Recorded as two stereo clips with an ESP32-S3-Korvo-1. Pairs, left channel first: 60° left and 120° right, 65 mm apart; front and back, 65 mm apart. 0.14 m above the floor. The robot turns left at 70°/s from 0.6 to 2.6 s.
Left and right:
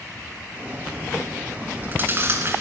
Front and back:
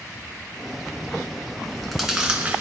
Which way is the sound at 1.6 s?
70° right.